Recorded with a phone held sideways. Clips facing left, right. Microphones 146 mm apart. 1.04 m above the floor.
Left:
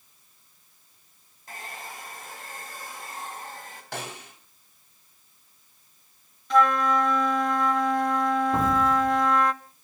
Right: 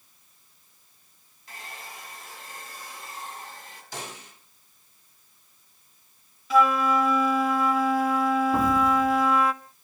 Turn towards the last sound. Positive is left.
turn(degrees=5)  # may be behind; listen again after turning